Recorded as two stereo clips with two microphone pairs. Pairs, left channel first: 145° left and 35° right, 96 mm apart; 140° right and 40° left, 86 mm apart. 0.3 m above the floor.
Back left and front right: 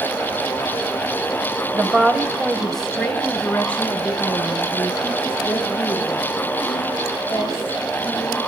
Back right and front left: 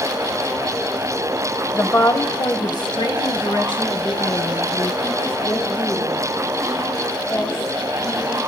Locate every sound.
1.7 s a woman speaking: 95° right, 1.0 m; by 8.4 s 150° right, 6.5 m